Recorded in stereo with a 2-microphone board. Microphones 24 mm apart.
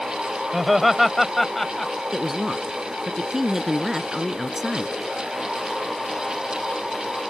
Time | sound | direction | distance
0.5 | laughter | 10° right (ahead or behind) | ?
2.1 | a woman speaking | 15° right (ahead or behind) | ?